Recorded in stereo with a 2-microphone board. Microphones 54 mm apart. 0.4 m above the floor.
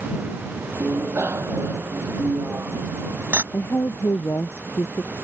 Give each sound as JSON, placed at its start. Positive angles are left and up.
{"t": 0.8, "sound": "a bicycle bell", "side_deg": -45}
{"t": 3.5, "sound": "a woman speaking", "side_deg": 55}